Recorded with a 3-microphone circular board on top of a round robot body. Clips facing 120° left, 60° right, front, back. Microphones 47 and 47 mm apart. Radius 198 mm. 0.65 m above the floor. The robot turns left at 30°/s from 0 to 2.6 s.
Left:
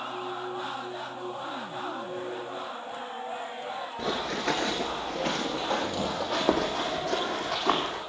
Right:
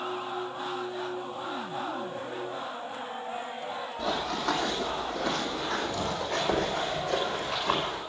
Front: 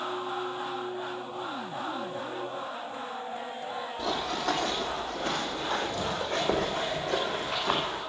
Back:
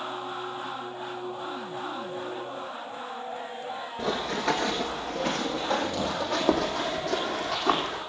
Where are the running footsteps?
165° left, 0.6 m; by 8.0 s 150° left, 3.5 m.